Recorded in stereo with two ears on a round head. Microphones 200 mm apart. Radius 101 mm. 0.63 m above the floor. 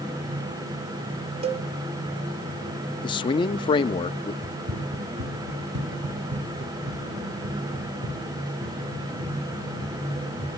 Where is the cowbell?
25° right (ahead or behind), 0.8 m.